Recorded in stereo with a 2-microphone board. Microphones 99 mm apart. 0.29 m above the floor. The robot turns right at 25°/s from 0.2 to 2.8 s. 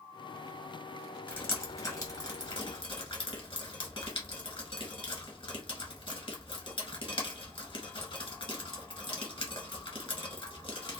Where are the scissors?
I don't hear scissors.